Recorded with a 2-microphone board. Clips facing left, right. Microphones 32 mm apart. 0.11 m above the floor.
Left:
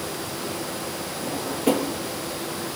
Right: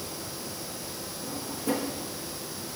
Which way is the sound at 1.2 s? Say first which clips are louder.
Left 9 dB; 60° left (ahead or behind).